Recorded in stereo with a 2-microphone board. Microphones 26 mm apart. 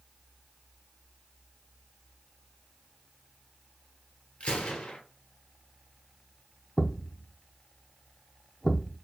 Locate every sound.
4.4 s a gunshot: 45° left (ahead or behind), 1.2 m
6.8 s a thud: 30° left (ahead or behind), 1.1 m